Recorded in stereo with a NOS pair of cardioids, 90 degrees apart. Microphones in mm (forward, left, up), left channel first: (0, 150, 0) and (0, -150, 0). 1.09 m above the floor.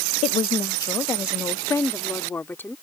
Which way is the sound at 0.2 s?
20° left.